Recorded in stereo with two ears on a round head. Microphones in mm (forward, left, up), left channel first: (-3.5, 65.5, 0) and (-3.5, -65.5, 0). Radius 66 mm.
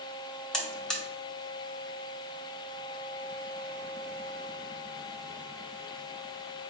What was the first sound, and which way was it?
A buzzer, 5° left (ahead or behind).